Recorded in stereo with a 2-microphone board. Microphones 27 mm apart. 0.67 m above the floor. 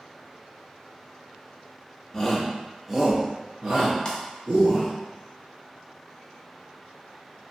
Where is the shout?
15° left (ahead or behind), 0.7 m; by 4.9 s 45° right (ahead or behind), 1.3 m.